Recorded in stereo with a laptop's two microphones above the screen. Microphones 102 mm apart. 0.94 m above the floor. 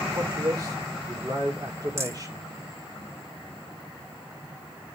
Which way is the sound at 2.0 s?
25° right (ahead or behind).